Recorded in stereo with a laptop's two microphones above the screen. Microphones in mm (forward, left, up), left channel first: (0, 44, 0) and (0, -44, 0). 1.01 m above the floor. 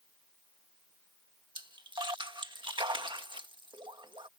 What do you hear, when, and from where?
1.6 s a splash: 60° right (ahead or behind)